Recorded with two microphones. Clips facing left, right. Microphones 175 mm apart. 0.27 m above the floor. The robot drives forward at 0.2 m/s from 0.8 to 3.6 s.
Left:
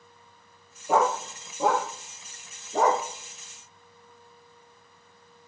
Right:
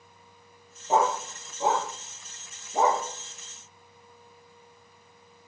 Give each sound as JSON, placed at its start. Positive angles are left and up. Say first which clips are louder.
{"t": 0.9, "sound": "a dog barking", "louder": "left 1 dB", "side_deg": 85, "distance_m": 3.5}